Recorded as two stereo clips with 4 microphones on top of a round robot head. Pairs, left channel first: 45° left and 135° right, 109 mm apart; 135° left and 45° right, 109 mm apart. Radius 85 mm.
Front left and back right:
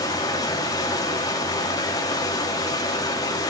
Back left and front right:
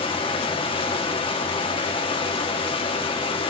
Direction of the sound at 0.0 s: 100° left.